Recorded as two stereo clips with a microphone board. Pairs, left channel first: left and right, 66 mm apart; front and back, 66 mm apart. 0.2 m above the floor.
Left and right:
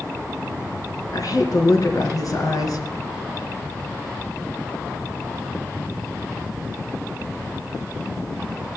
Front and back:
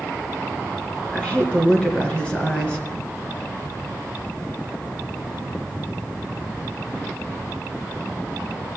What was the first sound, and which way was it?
A woman speaking, 70° left.